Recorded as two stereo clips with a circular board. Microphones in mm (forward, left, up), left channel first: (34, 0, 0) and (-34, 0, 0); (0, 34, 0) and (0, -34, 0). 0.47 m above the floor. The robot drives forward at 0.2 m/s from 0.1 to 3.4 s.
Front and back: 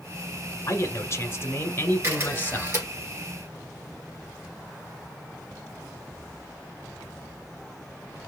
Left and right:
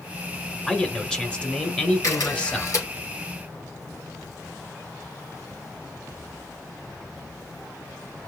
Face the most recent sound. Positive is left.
turn(degrees=135)